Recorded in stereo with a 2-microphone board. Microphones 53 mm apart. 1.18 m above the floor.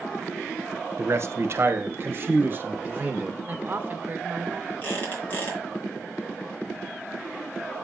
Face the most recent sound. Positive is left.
turn(degrees=35)  # may be behind; listen again after turning